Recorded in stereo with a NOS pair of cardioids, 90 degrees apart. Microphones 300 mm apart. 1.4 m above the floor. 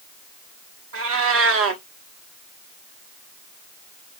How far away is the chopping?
No chopping in this recording.